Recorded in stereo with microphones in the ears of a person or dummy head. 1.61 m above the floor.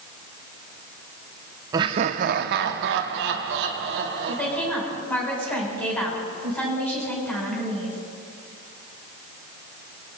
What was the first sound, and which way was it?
Laughter, 25° right (ahead or behind).